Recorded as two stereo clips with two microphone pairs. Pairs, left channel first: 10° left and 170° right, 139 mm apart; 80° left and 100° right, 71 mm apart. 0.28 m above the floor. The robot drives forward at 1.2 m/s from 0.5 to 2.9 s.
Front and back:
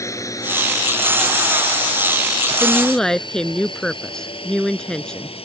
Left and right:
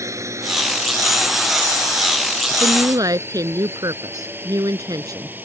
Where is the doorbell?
No doorbell in this recording.